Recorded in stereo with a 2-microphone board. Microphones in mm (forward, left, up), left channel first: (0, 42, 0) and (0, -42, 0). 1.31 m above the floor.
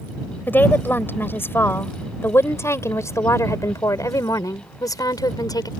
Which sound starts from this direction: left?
A woman speaking, at 0.5 s.